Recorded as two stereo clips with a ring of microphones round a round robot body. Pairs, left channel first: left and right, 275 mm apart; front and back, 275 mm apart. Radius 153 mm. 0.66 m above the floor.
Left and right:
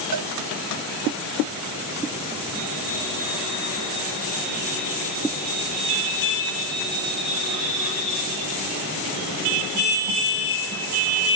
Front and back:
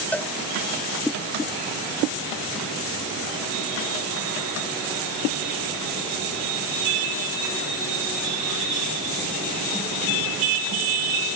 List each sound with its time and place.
0.1 s a cowbell: 85° right